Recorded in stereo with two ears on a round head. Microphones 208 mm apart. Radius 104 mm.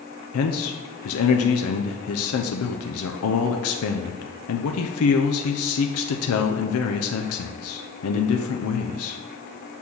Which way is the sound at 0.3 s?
75° left (ahead or behind).